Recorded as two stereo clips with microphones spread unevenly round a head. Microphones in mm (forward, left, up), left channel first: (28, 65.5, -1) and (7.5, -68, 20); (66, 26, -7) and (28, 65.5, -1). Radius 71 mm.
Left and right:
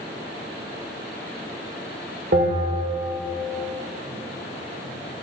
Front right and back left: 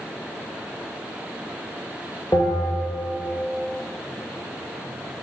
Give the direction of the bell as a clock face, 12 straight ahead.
3 o'clock.